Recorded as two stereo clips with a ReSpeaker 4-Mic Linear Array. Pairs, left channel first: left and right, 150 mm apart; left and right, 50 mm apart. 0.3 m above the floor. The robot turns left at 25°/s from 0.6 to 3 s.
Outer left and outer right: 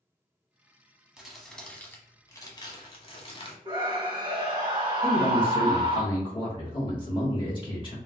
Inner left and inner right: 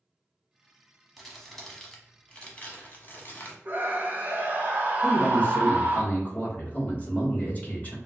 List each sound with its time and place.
1.2 s crumpling: 175° right, 0.9 m; by 3.5 s 140° left, 0.9 m
3.6 s a scream: 30° right (ahead or behind), 1.5 m
5.0 s a man speaking: 35° left (ahead or behind), 1.4 m